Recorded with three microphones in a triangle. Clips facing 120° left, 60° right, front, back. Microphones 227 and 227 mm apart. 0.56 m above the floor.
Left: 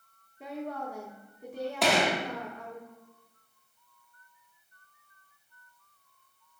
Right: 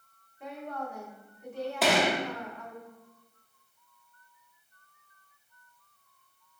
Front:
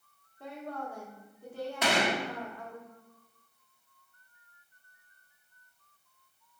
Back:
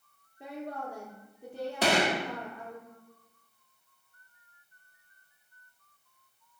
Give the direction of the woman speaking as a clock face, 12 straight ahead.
8 o'clock.